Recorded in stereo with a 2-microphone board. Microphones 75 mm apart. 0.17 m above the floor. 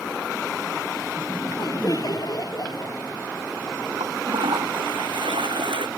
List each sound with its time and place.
1.2 s laughter: 55° left (ahead or behind)
4.0 s a toilet flushing: 80° right